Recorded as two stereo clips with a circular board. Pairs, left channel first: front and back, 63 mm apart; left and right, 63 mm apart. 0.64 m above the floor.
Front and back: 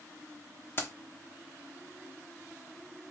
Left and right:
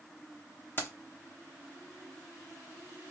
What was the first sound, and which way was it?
Keys jangling, 45° left.